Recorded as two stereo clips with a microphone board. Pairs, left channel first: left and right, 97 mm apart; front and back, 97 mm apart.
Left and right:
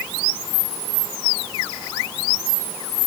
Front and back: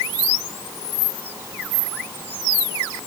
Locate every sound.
Only background noise.